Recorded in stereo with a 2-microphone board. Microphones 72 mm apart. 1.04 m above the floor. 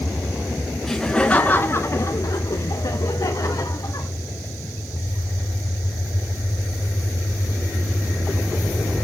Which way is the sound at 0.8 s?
5° left (ahead or behind).